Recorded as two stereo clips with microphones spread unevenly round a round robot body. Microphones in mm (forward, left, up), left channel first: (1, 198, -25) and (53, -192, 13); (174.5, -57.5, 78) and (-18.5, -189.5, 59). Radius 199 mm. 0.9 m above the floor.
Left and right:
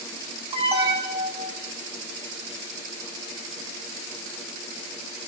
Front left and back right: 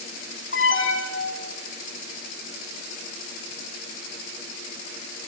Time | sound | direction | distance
0.5 | an alarm | 5° right | 3.5 m